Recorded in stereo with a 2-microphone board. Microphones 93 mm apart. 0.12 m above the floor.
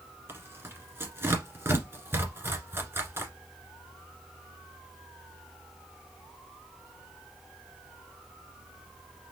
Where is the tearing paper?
25° right (ahead or behind), 1.4 m.